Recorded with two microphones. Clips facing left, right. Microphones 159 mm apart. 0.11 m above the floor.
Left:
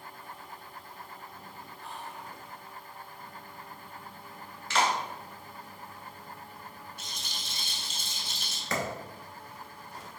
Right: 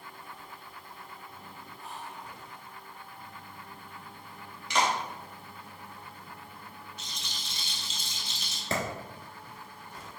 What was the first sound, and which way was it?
Whispering, 5° right (ahead or behind).